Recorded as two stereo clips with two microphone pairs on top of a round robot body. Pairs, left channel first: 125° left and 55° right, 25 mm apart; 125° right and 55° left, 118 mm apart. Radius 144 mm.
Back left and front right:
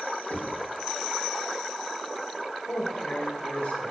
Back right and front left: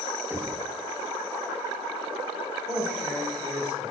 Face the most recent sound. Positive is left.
turn(degrees=125)